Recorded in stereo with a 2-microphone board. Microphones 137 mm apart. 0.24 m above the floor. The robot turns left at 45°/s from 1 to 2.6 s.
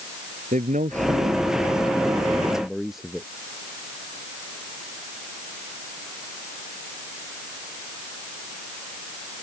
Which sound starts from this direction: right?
A man speaking, at 0.5 s.